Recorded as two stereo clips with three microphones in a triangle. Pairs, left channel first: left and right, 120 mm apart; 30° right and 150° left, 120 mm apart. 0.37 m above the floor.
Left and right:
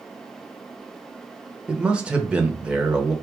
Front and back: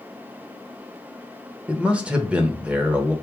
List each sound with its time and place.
1.7 s a man speaking: 150° right, 0.9 m